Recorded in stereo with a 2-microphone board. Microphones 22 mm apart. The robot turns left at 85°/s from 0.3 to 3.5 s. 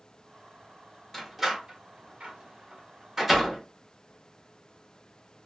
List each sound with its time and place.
1.1 s a door slam: 10° left (ahead or behind), 0.9 m